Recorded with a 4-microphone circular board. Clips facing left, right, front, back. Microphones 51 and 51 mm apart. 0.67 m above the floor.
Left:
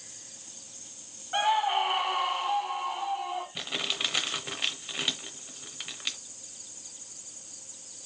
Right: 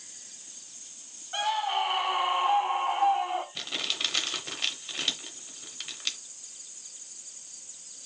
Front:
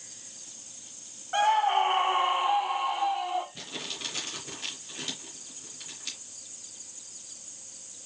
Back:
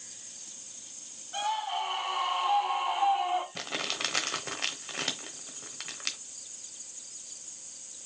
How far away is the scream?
About 0.8 m.